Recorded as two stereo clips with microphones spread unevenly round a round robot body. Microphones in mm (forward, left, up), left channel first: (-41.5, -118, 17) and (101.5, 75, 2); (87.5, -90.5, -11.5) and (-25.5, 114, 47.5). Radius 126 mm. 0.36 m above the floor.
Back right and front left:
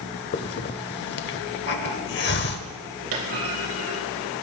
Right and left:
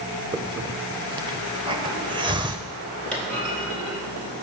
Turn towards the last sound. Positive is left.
turn(degrees=25)